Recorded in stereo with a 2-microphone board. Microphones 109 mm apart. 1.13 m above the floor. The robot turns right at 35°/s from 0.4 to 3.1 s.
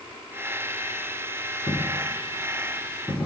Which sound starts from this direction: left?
A dropped coin, at 1.7 s.